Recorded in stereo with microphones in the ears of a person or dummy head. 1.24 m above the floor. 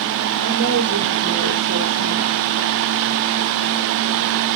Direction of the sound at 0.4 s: 85° right.